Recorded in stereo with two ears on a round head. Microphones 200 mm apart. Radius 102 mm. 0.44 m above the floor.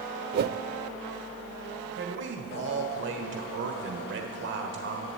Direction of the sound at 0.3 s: 45° right (ahead or behind).